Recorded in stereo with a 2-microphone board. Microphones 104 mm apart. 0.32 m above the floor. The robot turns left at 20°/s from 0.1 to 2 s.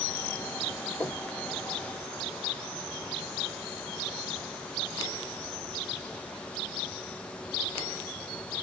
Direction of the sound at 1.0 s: 25° left (ahead or behind).